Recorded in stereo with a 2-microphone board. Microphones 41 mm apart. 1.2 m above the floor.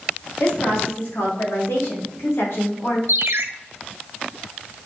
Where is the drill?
I don't hear a drill.